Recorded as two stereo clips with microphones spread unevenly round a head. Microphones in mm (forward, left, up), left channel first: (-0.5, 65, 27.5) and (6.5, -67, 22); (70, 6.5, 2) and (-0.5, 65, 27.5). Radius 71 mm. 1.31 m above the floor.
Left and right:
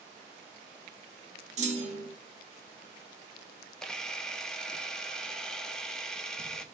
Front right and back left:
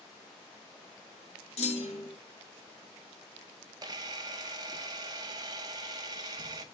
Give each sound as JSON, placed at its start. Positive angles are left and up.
{"t": 1.6, "sound": "a clunk", "azimuth_deg": -45, "distance_m": 1.8}
{"t": 3.8, "sound": "a camera shutter", "azimuth_deg": 175, "distance_m": 0.6}